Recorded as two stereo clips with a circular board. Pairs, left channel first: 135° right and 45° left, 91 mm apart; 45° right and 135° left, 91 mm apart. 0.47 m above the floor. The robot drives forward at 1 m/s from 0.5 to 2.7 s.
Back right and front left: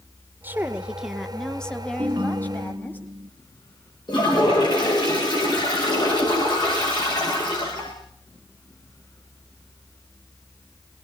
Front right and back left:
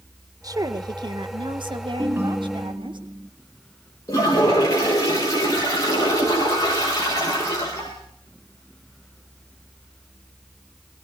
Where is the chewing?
I don't hear chewing.